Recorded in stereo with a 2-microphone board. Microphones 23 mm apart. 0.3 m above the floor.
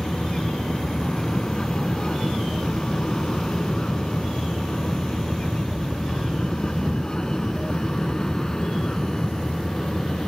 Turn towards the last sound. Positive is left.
turn(degrees=30)  # may be behind; listen again after turning